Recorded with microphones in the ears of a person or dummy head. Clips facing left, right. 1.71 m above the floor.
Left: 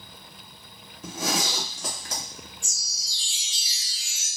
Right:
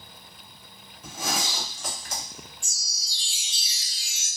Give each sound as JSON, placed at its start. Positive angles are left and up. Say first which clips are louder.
{"t": 1.0, "sound": "a zipper", "louder": "left 3 dB", "side_deg": 45, "distance_m": 1.2}
{"t": 2.6, "sound": "a chime", "louder": "left 2 dB", "side_deg": -30, "distance_m": 0.6}